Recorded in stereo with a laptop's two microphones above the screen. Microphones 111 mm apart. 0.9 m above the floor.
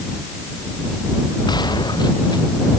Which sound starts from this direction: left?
A gunshot, at 1.5 s.